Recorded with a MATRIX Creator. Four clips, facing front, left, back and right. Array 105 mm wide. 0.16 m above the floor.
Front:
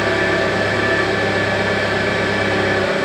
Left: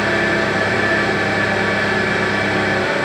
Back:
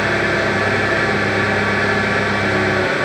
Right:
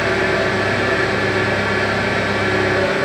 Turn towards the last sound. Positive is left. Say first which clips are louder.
# even, front 1 dB
turn(degrees=165)